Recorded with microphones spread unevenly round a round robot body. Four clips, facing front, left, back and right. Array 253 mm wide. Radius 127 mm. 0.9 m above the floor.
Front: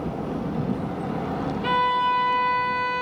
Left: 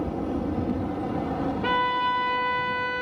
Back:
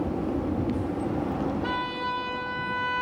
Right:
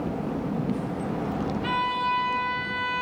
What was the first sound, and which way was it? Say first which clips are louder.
A violin: left 3 dB, front 8 dB; 60° left.